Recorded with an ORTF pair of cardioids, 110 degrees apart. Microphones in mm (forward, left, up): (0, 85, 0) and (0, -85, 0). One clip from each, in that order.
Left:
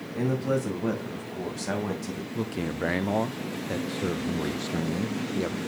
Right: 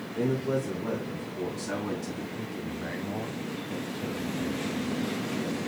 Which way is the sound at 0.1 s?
55° left.